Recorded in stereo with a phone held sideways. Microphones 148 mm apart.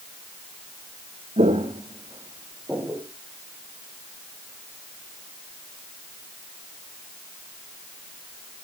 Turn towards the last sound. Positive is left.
turn(degrees=-10)  # may be behind; listen again after turning